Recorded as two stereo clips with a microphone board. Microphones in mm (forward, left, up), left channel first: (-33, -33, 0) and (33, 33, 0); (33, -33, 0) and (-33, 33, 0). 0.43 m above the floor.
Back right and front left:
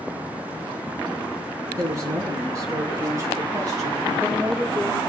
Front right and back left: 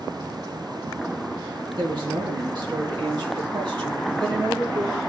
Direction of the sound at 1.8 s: 95° left.